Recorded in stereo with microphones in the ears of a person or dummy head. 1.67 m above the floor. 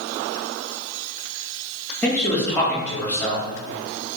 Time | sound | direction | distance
2.0 | a man speaking | 10° left (ahead or behind) | 1.7 m